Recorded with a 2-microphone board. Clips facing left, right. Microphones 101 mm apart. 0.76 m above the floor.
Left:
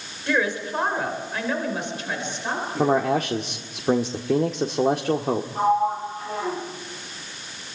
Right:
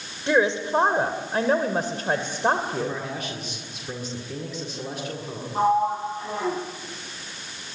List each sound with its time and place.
0.3 s a woman speaking: 20° right (ahead or behind), 3 m; by 3.0 s 55° right (ahead or behind), 3 m
2.8 s a man speaking: 70° left (ahead or behind), 1.8 m
5.5 s a sliding door: 25° right (ahead or behind), 6.5 m